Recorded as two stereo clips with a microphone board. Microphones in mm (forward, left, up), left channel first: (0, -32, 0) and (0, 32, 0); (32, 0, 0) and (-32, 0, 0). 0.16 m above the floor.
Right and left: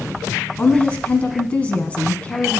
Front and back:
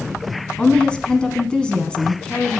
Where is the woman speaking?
55° right, 1.2 m.